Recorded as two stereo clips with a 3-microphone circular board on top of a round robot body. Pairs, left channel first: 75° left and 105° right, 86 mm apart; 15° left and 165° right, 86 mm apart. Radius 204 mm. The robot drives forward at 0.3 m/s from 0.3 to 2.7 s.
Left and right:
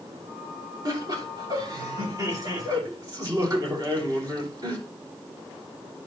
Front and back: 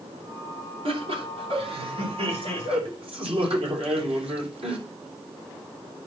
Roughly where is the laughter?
Behind right.